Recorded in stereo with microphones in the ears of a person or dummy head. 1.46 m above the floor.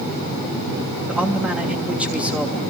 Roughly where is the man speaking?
Centre.